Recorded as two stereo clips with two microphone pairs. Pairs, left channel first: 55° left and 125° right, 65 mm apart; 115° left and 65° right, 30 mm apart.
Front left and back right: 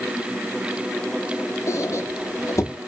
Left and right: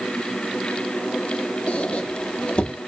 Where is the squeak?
80° left, 0.7 m.